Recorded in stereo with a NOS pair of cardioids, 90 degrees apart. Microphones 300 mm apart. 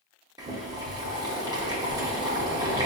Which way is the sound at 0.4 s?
15° right.